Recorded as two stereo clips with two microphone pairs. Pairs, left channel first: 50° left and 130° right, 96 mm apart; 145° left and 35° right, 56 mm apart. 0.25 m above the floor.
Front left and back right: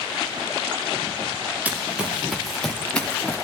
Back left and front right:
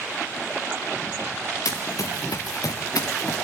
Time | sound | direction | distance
1.6 | running footsteps | 155° left | 2 m